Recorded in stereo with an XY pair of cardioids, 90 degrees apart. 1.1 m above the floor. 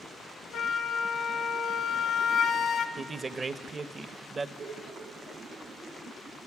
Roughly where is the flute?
Ahead left.